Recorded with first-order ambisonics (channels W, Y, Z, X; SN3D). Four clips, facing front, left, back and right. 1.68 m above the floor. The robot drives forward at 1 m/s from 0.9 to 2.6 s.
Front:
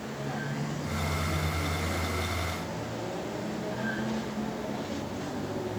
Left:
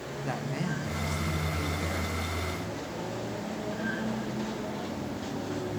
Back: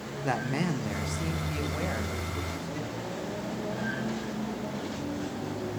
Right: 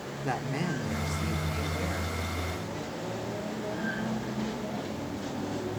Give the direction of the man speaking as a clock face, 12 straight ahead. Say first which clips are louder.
Right 2 dB, back 7 dB; 6 o'clock.